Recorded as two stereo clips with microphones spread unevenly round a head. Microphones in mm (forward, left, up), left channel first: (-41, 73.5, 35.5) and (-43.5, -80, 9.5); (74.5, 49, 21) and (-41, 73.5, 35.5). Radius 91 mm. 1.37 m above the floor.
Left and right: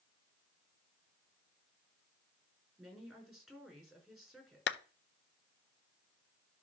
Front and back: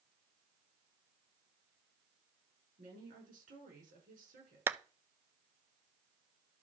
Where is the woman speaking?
Straight behind, 6 m.